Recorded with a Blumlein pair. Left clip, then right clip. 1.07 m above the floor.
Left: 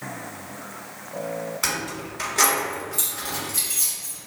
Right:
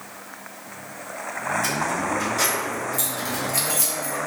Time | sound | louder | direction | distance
1.6 | keys jangling | right 4 dB | 50° left | 1.2 m